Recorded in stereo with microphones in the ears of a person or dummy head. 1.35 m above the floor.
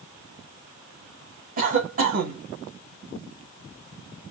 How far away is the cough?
About 1.5 m.